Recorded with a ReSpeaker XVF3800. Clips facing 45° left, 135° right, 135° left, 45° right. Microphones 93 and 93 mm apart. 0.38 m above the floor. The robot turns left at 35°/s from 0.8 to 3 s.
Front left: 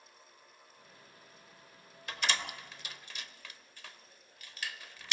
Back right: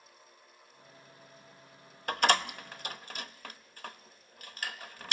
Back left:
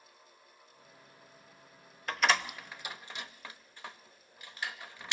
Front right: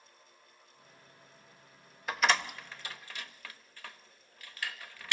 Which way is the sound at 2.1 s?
125° right.